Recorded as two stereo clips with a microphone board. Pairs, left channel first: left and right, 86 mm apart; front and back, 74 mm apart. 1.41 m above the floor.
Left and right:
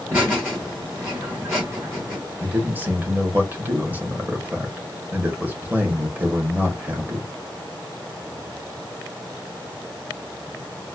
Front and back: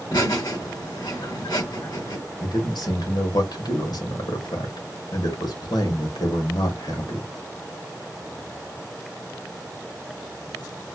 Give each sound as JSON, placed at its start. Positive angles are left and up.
{"t": 0.1, "sound": "laughter", "azimuth_deg": -25, "distance_m": 3.0}
{"t": 2.4, "sound": "a man speaking", "azimuth_deg": -20, "distance_m": 1.4}